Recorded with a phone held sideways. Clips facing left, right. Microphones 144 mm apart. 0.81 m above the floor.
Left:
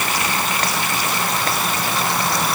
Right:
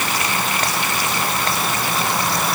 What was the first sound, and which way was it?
Only background noise.